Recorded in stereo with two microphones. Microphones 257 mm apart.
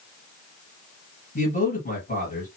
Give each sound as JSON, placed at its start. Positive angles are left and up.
{"t": 1.4, "sound": "a man speaking", "side_deg": 35, "distance_m": 2.5}